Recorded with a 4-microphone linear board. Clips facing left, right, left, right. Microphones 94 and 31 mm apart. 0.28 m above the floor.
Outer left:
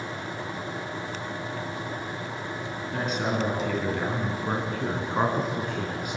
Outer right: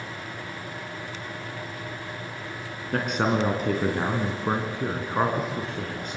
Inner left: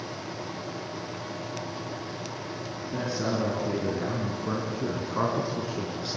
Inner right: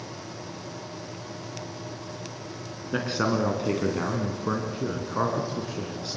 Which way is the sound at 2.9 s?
65° right (ahead or behind).